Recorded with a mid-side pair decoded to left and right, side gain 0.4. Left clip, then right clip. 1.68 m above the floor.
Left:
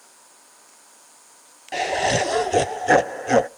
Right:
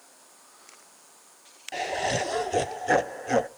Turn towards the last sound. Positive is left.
turn(degrees=50)